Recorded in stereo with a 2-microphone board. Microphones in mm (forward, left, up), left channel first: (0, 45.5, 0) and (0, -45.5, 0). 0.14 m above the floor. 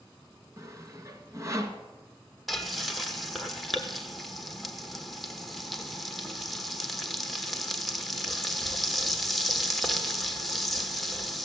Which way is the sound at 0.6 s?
35° right (ahead or behind).